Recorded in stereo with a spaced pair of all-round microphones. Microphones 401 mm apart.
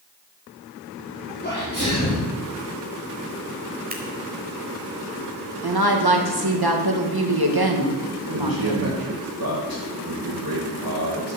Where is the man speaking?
60° right (ahead or behind), 3 m.